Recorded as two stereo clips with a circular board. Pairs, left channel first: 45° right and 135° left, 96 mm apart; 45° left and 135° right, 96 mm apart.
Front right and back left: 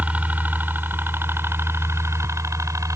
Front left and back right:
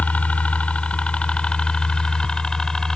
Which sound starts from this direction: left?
A helicopter, at 0.0 s.